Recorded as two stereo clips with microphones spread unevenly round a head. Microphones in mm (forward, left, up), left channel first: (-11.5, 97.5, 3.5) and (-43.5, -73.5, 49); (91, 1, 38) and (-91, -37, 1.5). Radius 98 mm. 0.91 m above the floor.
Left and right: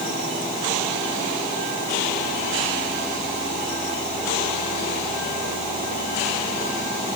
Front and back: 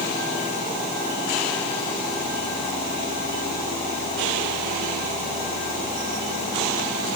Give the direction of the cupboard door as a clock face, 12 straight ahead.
No cupboard door in this recording.